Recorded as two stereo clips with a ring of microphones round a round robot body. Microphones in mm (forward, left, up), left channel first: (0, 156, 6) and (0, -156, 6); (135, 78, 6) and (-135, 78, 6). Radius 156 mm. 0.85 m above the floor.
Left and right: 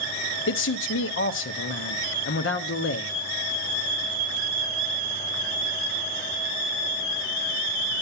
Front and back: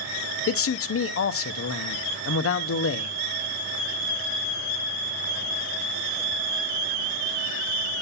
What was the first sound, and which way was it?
A man speaking, 40° left.